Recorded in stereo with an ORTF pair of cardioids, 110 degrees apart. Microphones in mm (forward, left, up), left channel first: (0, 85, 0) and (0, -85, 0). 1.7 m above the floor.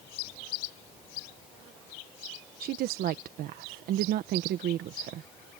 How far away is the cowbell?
I don't hear a cowbell.